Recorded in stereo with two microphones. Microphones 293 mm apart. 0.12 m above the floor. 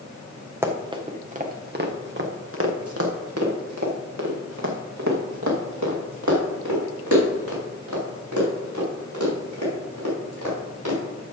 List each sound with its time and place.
0.6 s running footsteps: 10° right (ahead or behind), 1.5 m; by 11.0 s 85° right, 7 m